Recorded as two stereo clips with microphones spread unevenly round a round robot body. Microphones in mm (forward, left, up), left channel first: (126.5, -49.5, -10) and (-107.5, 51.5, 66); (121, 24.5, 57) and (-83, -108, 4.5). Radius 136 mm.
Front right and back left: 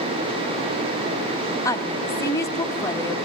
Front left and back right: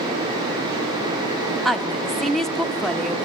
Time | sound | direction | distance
1.6 | a woman speaking | 70° right | 0.8 m